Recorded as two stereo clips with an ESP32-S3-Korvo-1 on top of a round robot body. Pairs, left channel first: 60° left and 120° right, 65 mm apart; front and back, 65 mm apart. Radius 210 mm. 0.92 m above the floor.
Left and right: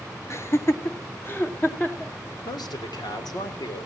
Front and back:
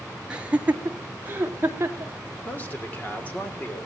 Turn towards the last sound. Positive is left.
turn(degrees=65)